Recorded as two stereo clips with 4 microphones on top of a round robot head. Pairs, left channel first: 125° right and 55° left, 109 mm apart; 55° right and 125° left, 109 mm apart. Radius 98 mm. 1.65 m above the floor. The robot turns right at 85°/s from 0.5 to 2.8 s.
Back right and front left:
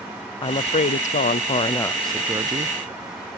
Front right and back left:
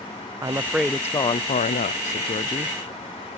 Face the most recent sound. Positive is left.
turn(degrees=25)